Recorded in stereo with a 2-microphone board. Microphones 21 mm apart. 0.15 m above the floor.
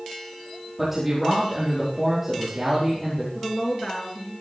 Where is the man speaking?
10° right (ahead or behind), 4.5 m.